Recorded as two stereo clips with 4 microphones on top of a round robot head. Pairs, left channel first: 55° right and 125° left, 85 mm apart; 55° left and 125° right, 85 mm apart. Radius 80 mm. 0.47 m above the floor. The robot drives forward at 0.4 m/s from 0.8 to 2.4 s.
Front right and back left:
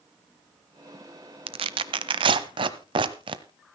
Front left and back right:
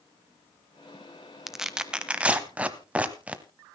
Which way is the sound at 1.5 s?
145° left.